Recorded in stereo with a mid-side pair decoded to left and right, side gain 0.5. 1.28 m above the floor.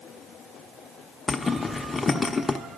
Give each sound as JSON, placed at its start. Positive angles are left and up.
{"t": 1.3, "sound": "a zipper", "azimuth_deg": 25, "distance_m": 0.7}